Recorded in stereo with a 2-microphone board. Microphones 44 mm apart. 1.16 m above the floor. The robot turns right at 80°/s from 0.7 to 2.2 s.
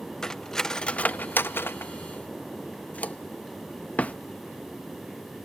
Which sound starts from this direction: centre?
Cutlery clinking, at 0.2 s.